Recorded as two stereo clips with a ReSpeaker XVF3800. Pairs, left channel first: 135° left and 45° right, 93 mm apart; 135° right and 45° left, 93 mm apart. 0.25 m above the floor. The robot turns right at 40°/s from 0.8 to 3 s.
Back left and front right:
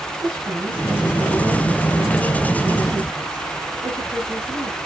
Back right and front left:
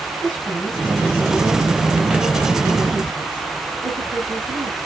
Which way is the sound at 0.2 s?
70° right.